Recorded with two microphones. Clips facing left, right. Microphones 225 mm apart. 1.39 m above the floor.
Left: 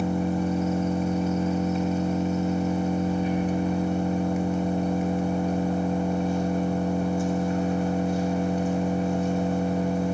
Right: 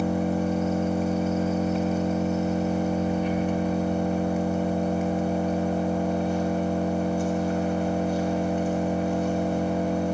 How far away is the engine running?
About 1.9 m.